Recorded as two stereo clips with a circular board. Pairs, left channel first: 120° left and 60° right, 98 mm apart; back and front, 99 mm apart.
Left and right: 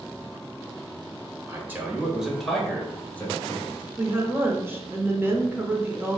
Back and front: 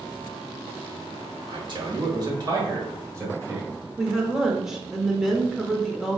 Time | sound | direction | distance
1.5 | a man speaking | straight ahead | 1.2 m
4.0 | a woman speaking | 75° right | 0.8 m